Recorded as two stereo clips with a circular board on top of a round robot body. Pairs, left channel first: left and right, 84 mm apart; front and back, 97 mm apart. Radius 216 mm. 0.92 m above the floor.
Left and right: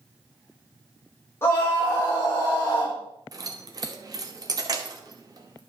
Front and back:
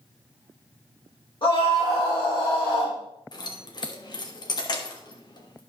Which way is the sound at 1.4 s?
30° left.